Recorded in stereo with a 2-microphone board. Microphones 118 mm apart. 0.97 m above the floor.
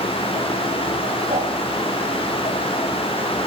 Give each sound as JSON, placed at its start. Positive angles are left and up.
{"t": 1.3, "sound": "a whoosh", "side_deg": -65, "distance_m": 9.0}